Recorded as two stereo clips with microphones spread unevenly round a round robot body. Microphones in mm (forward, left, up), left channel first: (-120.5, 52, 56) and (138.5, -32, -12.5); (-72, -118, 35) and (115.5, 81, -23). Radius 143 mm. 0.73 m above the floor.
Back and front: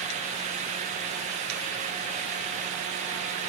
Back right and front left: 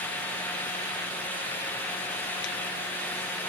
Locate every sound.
Only background noise.